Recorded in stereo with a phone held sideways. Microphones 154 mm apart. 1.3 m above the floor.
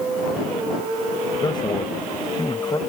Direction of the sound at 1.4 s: 30° left (ahead or behind).